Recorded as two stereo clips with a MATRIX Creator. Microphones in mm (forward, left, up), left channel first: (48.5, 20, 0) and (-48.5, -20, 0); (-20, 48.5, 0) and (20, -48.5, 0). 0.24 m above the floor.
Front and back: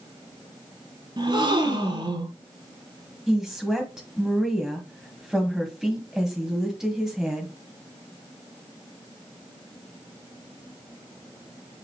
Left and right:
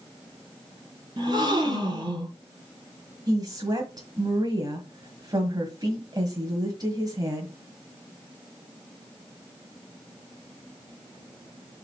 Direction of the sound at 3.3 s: 75° right.